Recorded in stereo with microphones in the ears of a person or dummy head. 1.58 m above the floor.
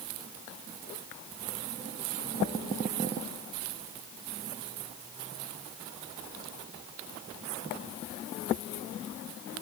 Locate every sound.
Only background noise.